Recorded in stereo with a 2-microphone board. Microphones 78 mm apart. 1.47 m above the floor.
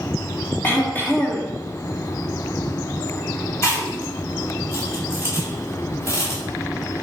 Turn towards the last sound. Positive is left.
turn(degrees=35)  # may be behind; listen again after turning